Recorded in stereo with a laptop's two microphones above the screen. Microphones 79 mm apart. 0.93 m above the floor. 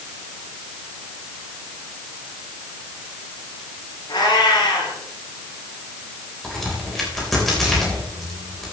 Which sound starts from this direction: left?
A cat meowing, at 4.1 s.